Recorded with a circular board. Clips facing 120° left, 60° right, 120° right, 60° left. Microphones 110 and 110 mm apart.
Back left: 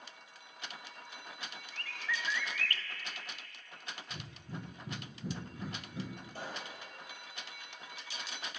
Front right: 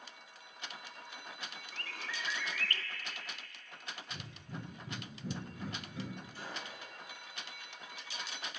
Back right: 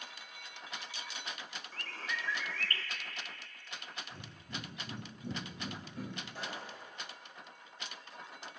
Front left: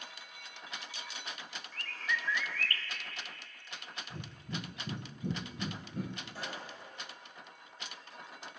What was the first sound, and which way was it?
A bird, 85° right.